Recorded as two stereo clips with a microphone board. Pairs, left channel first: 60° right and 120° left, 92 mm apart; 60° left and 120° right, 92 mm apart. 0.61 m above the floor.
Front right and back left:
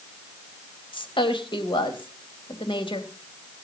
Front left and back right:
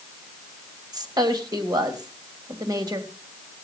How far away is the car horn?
I don't hear a car horn.